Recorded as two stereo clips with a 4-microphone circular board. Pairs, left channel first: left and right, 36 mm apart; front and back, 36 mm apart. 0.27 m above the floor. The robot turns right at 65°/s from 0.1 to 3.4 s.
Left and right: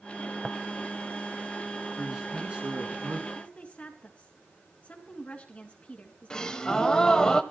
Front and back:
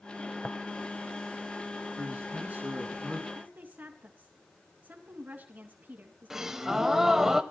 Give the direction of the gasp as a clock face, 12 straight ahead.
8 o'clock.